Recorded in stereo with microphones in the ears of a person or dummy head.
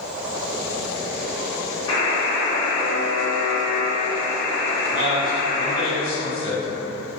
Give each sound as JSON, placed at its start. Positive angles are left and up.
{"t": 1.9, "sound": "a buzzer", "side_deg": 30, "distance_m": 0.7}
{"t": 4.8, "sound": "a man speaking", "side_deg": -50, "distance_m": 1.1}